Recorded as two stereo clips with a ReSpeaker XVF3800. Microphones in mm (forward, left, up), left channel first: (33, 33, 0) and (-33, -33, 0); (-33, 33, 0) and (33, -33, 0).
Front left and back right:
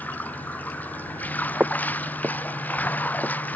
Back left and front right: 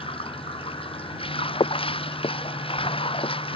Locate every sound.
0.0 s running water: 115° left
1.6 s footsteps: 150° left